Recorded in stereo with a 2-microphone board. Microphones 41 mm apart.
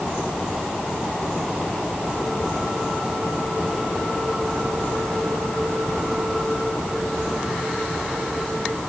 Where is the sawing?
No sawing in this recording.